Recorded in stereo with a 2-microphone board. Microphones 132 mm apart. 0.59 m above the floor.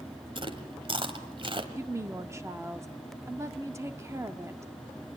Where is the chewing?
40° right (ahead or behind), 1.6 m.